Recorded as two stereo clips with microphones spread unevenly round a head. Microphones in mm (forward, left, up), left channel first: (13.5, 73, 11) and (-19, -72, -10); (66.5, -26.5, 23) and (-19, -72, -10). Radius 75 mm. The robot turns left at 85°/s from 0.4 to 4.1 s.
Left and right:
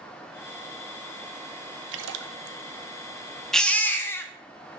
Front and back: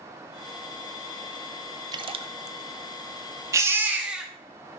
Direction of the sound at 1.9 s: 95° right.